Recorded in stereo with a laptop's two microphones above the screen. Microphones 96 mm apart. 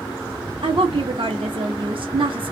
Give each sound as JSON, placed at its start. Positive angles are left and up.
{"t": 0.6, "sound": "a woman speaking", "side_deg": -65, "distance_m": 0.8}